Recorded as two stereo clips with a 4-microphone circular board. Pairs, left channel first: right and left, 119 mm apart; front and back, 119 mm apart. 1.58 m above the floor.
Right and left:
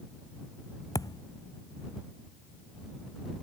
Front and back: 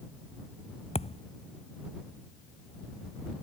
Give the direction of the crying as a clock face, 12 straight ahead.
No crying in this recording.